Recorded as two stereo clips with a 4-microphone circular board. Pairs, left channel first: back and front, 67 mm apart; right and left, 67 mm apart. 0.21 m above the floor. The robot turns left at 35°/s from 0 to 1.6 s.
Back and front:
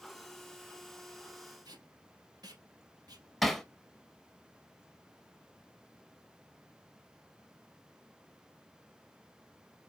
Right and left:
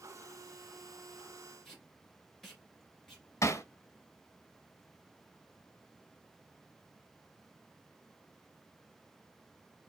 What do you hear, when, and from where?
1.6 s tape being pulled: 5° right, 1.8 m
3.4 s hammering: 90° right, 0.9 m